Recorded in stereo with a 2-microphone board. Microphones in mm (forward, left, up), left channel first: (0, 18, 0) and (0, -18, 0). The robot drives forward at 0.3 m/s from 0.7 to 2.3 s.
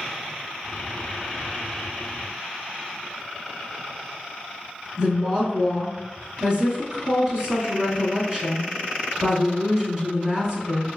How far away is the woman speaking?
About 1.3 m.